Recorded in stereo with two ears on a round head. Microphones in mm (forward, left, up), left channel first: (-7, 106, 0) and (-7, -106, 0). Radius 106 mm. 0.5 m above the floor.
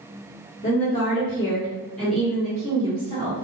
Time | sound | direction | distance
0.6 | a woman speaking | 35° left (ahead or behind) | 1.5 m